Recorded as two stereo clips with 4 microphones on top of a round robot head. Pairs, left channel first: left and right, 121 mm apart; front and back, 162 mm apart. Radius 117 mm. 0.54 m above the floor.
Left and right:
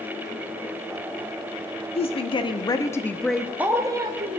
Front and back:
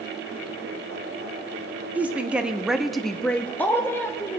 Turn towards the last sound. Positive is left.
turn(degrees=-70)